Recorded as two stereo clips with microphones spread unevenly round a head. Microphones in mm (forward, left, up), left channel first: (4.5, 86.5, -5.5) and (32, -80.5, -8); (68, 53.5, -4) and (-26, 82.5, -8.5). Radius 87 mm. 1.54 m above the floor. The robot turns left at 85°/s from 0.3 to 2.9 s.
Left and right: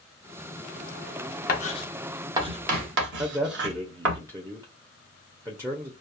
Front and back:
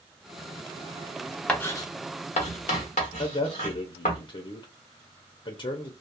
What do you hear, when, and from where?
1.5 s writing: 65° left, 0.8 m; by 4.2 s 55° right, 0.8 m
3.2 s a man speaking: 10° right, 0.5 m